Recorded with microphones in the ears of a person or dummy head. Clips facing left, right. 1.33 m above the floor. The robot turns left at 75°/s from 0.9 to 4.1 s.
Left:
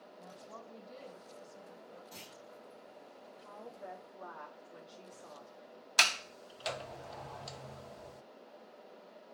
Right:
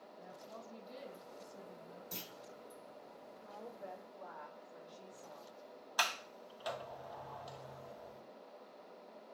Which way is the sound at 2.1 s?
75° right (ahead or behind).